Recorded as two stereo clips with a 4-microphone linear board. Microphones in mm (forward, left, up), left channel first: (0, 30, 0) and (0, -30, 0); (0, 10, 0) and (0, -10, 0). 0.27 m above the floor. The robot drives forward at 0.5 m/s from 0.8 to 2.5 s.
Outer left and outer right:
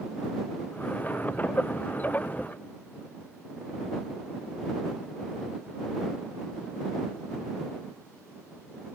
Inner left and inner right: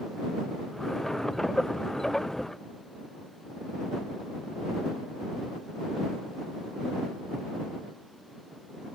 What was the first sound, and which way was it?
Only background noise.